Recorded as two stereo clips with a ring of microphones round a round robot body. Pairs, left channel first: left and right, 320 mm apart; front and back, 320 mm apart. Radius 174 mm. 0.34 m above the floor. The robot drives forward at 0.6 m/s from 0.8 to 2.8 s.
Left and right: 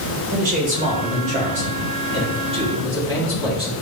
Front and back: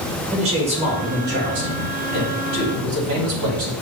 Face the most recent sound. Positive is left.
turn(degrees=-160)